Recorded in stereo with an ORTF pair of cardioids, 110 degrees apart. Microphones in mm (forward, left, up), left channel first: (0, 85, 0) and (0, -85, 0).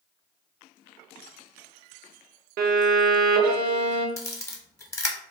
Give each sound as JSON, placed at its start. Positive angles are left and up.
{"t": 2.6, "sound": "a violin", "azimuth_deg": -65, "distance_m": 0.6}
{"t": 4.2, "sound": "a camera shutter", "azimuth_deg": 15, "distance_m": 0.7}